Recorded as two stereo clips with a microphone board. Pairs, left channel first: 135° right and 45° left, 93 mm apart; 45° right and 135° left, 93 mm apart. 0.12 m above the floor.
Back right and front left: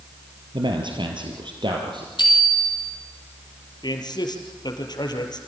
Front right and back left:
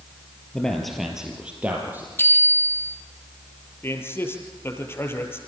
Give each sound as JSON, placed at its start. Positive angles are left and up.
{"t": 0.5, "sound": "a man speaking", "azimuth_deg": 35, "distance_m": 2.5}
{"t": 2.2, "sound": "a bicycle bell", "azimuth_deg": -105, "distance_m": 3.5}
{"t": 3.8, "sound": "a man speaking", "azimuth_deg": -105, "distance_m": 3.0}